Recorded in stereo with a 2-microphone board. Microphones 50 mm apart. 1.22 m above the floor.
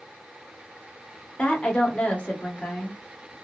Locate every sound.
1.4 s a woman speaking: 25° left (ahead or behind), 1.0 m